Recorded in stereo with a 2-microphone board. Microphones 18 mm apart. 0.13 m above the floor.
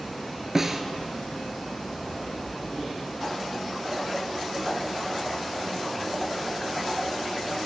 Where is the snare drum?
25° right (ahead or behind), 0.8 m.